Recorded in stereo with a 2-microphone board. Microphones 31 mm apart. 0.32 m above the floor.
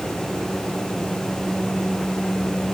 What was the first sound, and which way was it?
Only background noise.